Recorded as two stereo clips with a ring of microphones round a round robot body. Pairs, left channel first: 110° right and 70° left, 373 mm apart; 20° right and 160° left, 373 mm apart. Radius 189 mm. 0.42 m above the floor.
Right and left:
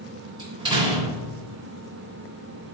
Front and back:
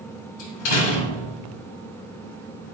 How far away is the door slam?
About 3 m.